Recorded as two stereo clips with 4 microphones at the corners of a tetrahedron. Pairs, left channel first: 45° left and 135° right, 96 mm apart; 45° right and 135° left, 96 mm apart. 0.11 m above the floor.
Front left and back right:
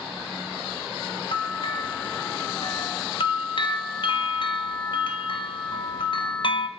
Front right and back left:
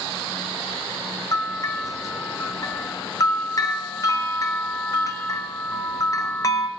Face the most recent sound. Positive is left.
turn(degrees=10)